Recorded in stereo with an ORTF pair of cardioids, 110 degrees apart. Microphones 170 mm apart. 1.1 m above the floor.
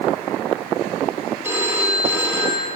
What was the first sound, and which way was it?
A phone ringing, 15° right.